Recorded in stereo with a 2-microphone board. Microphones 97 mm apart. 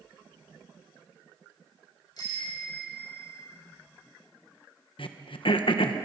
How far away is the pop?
I don't hear a pop.